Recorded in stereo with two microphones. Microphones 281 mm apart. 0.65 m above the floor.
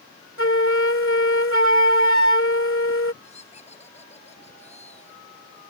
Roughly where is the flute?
Left.